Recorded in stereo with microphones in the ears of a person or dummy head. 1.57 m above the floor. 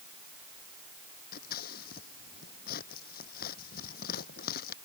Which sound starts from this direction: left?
Scissors, at 1.3 s.